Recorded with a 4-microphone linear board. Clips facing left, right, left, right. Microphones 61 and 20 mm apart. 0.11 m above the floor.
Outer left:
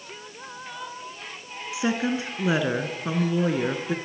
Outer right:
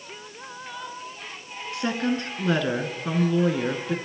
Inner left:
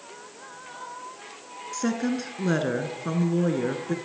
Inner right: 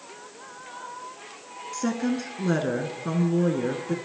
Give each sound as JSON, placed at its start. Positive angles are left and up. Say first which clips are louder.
{"t": 1.7, "sound": "a woman speaking", "louder": "outer left 1 dB, even", "side_deg": 10, "distance_m": 1.2}